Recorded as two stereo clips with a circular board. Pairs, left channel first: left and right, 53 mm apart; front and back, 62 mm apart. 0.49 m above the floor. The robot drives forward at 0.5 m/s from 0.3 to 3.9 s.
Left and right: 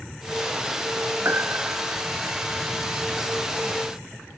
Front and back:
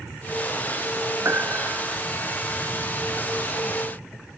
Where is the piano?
135° right.